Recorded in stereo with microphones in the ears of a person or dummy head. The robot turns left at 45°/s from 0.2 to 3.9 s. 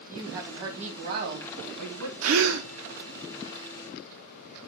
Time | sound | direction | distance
0.1 | a woman speaking | 5° right | 2.5 m
2.2 | a gasp | 75° right (ahead or behind) | 0.8 m